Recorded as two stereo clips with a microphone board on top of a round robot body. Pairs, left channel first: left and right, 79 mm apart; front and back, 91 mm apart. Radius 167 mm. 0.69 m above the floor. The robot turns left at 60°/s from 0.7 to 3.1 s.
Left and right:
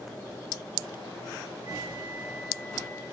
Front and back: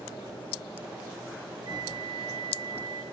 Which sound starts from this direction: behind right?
A flute, at 1.6 s.